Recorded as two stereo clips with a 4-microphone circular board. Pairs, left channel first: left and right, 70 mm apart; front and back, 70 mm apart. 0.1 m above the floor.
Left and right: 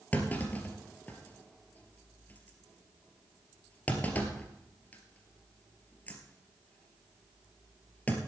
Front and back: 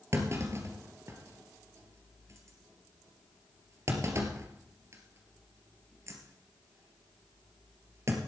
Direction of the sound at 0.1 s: 150° left.